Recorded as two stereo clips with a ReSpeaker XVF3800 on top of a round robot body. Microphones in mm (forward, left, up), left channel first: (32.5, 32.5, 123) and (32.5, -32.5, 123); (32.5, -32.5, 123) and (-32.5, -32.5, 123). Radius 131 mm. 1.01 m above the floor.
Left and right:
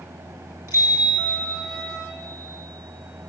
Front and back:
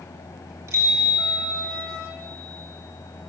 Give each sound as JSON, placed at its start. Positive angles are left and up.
{"t": 0.7, "sound": "a bicycle bell", "azimuth_deg": -140, "distance_m": 5.0}